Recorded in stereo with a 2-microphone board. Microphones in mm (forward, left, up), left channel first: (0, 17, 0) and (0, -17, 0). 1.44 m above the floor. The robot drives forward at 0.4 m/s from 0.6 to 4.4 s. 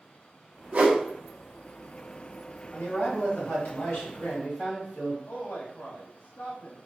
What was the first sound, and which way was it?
A whoosh, 35° right (ahead or behind).